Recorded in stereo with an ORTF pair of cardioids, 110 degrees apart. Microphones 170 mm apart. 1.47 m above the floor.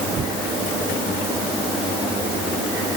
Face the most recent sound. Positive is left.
No sound to turn to.